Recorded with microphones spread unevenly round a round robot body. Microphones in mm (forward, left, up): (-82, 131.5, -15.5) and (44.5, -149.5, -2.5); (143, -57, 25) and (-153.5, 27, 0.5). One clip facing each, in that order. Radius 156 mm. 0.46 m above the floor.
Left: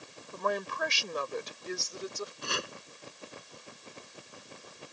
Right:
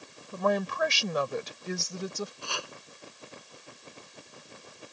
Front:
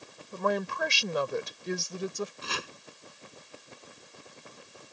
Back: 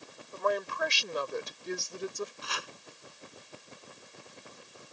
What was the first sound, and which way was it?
A woman speaking, 60° right.